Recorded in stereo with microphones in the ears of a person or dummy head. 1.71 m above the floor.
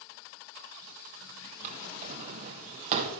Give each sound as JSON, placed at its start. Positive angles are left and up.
{"t": 1.6, "sound": "a drawer", "side_deg": -40, "distance_m": 1.1}